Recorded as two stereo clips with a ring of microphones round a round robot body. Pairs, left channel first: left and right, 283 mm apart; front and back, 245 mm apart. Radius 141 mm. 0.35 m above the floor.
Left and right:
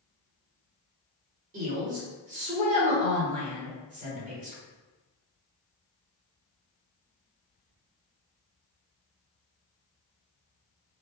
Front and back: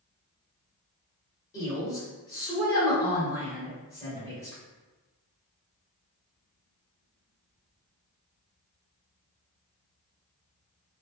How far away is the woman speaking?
About 1.5 m.